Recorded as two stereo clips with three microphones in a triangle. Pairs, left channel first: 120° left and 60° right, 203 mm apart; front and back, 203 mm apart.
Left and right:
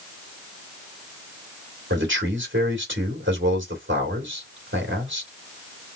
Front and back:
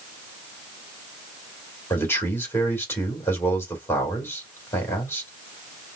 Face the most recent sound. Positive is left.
turn(degrees=-80)